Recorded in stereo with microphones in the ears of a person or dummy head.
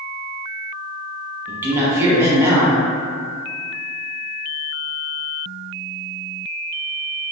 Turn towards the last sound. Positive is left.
turn(degrees=-15)  # may be behind; listen again after turning